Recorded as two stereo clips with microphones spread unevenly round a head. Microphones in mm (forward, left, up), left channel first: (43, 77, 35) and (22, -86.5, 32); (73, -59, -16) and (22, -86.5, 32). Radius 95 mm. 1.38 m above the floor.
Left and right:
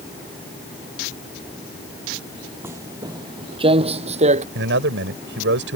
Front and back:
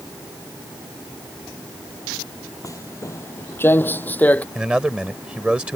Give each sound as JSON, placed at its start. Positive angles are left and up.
{"t": 2.6, "sound": "footsteps", "azimuth_deg": -25}
{"t": 4.5, "sound": "a man speaking", "azimuth_deg": -85}